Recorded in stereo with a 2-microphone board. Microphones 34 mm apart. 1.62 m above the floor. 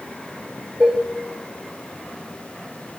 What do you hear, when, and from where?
0.8 s dishes clattering: 35° right (ahead or behind), 2.5 m